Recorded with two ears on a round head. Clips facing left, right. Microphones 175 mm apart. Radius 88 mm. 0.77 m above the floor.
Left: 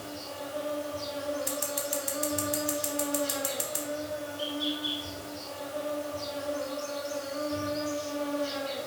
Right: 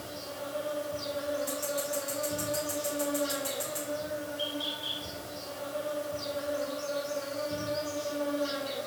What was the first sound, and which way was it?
An insect, 25° right (ahead or behind).